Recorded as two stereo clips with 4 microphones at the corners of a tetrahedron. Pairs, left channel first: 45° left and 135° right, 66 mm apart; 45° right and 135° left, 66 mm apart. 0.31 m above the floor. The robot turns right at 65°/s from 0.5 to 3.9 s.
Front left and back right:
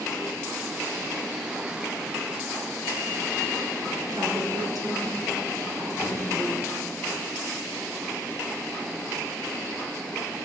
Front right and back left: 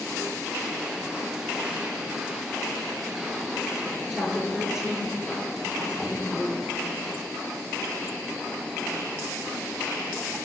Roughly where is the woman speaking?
Behind right.